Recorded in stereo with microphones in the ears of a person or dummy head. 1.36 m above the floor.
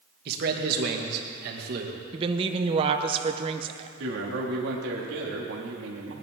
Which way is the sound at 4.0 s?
75° right (ahead or behind).